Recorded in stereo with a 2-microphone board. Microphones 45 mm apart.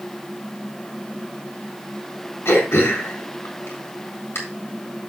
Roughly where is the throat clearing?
Left.